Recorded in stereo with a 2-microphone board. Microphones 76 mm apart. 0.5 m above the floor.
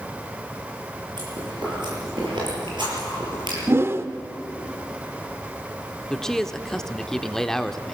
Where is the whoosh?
35° right (ahead or behind), 0.8 m.